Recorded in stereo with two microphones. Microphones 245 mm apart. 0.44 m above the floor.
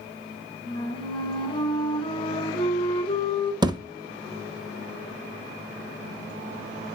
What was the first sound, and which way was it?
A flute, 20° left (ahead or behind).